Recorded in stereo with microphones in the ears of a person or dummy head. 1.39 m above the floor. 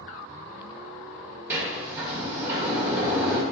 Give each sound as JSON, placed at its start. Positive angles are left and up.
{"t": 1.5, "sound": "a sliding door", "side_deg": -10, "distance_m": 1.6}